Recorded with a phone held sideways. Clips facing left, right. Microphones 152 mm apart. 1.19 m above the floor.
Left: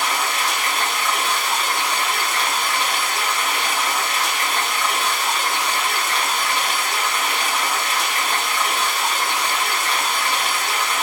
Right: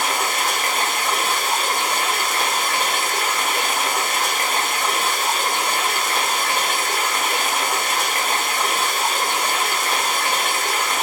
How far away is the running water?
About 1.2 m.